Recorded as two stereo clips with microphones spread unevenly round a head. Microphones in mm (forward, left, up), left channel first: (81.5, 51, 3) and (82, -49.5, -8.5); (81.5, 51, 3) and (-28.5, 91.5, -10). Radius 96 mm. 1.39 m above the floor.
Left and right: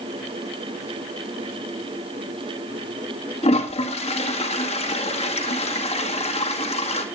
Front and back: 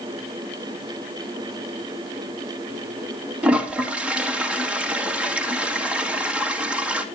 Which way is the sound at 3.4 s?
80° left.